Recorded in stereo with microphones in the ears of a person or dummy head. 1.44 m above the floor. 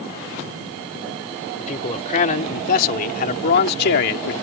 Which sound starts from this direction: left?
A man speaking, at 1.6 s.